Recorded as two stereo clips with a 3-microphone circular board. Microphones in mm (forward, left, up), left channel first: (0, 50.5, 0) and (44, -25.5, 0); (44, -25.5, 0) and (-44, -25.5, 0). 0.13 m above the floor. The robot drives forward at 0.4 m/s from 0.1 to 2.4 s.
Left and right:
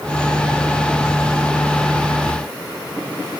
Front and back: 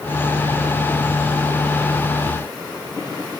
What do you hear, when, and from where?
Only background noise.